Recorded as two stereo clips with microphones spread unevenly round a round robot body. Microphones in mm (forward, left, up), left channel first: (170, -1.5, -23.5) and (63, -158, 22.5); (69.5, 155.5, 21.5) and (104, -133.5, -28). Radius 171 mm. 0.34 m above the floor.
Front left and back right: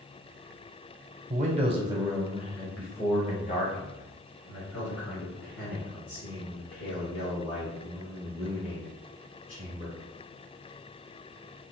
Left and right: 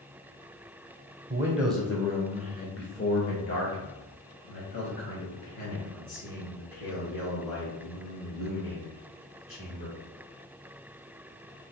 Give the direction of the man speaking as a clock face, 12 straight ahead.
4 o'clock.